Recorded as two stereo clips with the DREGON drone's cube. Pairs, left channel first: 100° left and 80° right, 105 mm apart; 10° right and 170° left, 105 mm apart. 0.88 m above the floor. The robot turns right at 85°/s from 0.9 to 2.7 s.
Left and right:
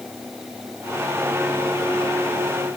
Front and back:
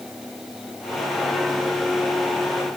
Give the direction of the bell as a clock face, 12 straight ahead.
No bell in this recording.